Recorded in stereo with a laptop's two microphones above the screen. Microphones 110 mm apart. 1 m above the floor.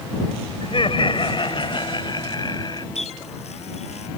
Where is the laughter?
55° left (ahead or behind); by 2.9 s 40° left (ahead or behind).